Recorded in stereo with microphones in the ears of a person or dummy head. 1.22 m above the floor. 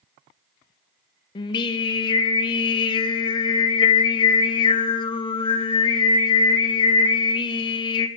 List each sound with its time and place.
1.4 s singing: 30° left (ahead or behind), 0.7 m